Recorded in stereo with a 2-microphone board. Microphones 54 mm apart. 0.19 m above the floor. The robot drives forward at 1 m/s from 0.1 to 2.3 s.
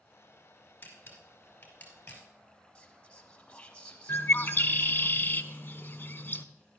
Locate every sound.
0.8 s a camera shutter: 40° left (ahead or behind), 2.5 m; by 2.2 s 25° left (ahead or behind), 3.5 m
2.8 s whispering: 20° left (ahead or behind), 1.0 m
4.1 s a bird: 40° left (ahead or behind), 0.5 m